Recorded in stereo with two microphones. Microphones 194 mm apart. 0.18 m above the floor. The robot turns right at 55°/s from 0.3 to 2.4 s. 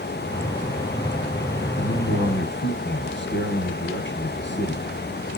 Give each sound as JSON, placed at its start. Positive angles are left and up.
{"t": 1.8, "sound": "a man speaking", "azimuth_deg": 65, "distance_m": 3.0}